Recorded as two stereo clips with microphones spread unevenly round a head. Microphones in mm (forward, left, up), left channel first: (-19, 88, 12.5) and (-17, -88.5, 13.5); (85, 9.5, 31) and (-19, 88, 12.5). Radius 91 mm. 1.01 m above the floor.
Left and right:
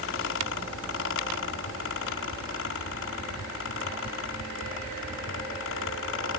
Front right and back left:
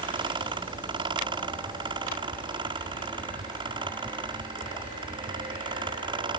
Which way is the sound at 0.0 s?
90° left.